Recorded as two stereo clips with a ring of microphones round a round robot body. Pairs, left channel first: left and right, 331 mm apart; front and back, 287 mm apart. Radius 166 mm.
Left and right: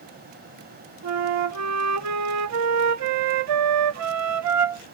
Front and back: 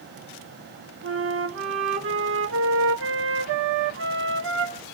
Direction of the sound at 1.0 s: 130° right.